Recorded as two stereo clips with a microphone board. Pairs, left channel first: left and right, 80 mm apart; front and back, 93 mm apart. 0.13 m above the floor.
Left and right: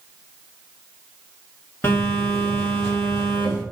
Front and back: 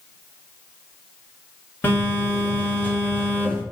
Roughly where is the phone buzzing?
Ahead left.